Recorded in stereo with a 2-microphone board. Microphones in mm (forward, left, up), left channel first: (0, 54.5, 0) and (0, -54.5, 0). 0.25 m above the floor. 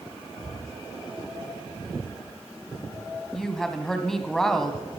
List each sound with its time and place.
0.4 s breathing: 70° left (ahead or behind), 3.5 m
3.3 s a woman speaking: 5° left (ahead or behind), 1.7 m